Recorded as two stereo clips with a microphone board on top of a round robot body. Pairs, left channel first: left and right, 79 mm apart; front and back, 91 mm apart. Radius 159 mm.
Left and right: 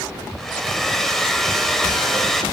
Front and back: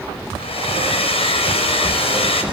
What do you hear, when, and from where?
0.4 s a hair dryer: 5° left, 4.5 m